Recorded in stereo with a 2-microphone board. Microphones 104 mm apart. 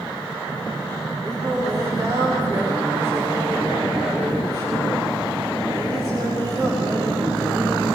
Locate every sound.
1.2 s singing: 40° right (ahead or behind), 9.5 m